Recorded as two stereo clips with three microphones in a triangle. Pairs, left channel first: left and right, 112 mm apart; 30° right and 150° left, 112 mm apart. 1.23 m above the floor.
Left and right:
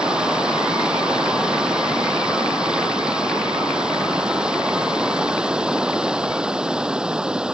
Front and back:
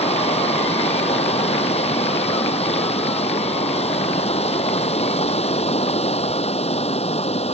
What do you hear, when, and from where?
0.0 s running water: 10° right